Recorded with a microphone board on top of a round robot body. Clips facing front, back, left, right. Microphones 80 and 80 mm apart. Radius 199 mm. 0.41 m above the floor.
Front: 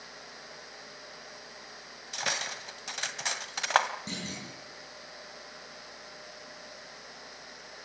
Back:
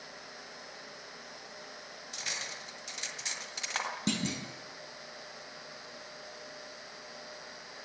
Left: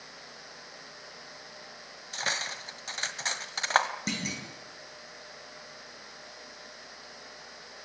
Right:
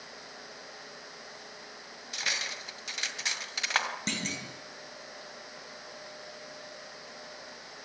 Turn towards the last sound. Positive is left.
turn(degrees=175)